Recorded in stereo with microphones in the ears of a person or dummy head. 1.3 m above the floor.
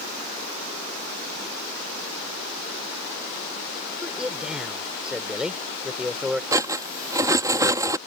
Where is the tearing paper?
I don't hear tearing paper.